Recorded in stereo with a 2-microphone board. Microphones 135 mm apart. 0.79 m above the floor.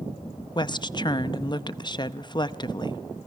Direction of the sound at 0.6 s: 35° left (ahead or behind).